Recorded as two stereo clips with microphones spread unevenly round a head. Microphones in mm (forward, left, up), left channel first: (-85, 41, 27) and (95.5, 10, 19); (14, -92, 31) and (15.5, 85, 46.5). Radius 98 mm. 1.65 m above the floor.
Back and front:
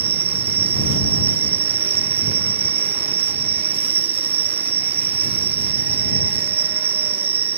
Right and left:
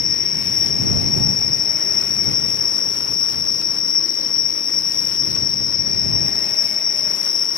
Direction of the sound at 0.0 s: 65° right.